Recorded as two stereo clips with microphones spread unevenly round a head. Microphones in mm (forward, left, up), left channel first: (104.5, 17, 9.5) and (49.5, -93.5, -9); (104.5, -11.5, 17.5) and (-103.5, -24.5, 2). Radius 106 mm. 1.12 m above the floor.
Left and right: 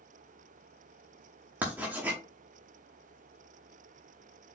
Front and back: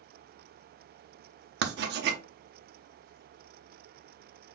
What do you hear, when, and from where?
1.6 s writing: 160° left, 0.7 m